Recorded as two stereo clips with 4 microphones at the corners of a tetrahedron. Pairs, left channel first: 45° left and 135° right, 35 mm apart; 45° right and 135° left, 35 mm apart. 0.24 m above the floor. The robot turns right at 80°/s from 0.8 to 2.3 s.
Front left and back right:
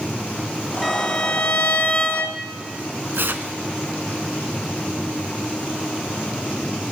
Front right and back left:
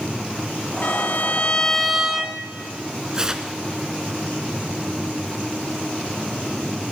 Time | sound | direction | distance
0.8 | a violin | 40° right | 1.0 m
3.1 | tearing paper | 155° right | 0.7 m